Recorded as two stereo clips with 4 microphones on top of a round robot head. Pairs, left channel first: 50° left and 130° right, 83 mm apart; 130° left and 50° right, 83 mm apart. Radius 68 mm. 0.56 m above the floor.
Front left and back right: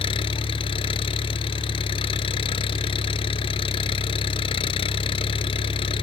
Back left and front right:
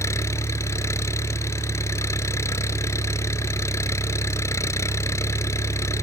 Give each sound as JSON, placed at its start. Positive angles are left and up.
{"t": 0.0, "sound": "an engine running", "azimuth_deg": 70}